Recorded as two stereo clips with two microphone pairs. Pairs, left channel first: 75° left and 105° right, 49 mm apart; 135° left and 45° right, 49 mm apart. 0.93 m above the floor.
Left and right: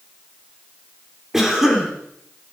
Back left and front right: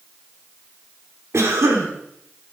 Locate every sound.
1.3 s a cough: 25° right, 2.5 m